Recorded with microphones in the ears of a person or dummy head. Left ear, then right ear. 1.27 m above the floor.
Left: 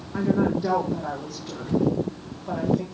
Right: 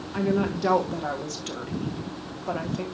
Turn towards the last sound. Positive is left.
turn(degrees=-60)  # may be behind; listen again after turning